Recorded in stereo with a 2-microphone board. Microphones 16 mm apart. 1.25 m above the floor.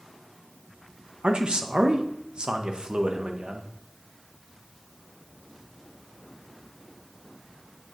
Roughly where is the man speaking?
Right.